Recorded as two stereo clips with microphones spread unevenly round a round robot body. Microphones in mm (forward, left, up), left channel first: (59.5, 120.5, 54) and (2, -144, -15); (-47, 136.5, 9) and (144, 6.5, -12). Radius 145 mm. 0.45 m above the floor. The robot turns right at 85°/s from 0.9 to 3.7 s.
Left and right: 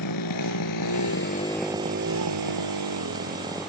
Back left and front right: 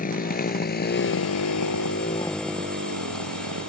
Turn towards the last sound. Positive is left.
turn(degrees=-10)